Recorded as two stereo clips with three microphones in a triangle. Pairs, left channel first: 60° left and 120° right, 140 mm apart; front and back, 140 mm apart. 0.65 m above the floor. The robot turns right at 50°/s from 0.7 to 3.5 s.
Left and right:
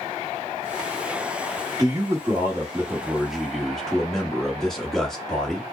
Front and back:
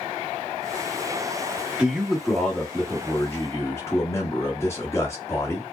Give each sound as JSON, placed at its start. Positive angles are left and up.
{"t": 1.8, "sound": "a man speaking", "azimuth_deg": -110, "distance_m": 1.2}